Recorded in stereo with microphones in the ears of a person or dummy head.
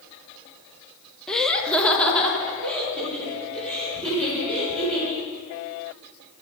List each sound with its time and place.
1.3 s laughter: centre (ahead or behind), 0.6 m; by 5.2 s 5° left (ahead or behind), 6 m